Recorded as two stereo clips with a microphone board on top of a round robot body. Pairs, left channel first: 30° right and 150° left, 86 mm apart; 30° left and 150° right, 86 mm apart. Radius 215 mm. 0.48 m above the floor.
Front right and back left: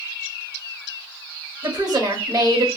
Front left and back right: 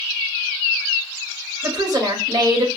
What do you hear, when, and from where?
1.6 s a woman speaking: 175° left, 1.8 m